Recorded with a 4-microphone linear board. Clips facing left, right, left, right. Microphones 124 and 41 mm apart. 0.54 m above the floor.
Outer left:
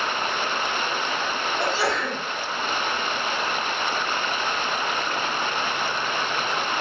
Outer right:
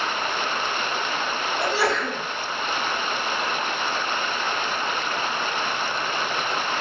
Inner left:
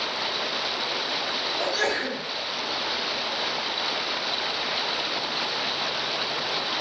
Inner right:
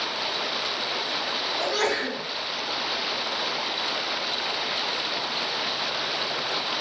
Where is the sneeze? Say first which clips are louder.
Outer right 2 dB, inner right 1 dB; 65° right (ahead or behind), 1.6 m.